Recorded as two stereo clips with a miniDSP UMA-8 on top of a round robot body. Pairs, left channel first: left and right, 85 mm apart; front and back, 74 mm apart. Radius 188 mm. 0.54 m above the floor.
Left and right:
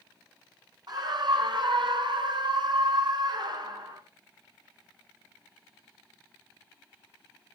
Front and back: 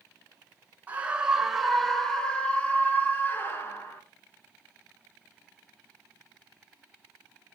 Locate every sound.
0.9 s a scream: 115° right, 1.4 m; by 4.0 s 55° right, 2.5 m